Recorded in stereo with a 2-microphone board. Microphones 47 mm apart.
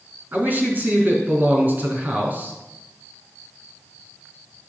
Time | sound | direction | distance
0.3 | a man speaking | 40° right (ahead or behind) | 4 m